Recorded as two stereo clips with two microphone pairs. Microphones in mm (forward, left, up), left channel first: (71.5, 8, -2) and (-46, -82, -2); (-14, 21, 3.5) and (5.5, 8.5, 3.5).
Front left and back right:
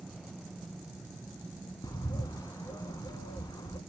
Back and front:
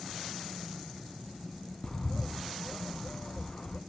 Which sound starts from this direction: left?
A bird, at 1.8 s.